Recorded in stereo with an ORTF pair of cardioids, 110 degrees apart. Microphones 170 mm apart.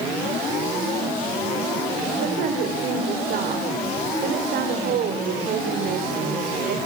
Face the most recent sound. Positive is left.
turn(degrees=-65)